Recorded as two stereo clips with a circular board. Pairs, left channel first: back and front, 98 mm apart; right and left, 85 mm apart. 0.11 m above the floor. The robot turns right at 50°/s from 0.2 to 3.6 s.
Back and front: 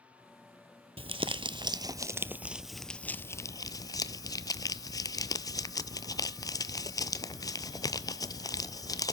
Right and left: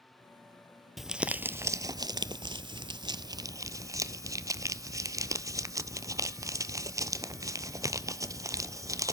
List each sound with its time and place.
1.0 s crumpling: straight ahead, 0.5 m; by 9.1 s 135° left, 0.5 m